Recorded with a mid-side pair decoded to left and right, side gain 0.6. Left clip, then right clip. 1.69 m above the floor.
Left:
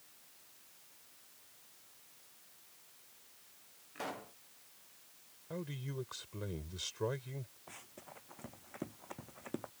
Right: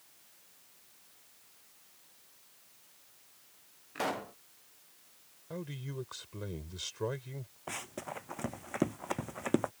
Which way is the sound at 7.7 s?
55° right.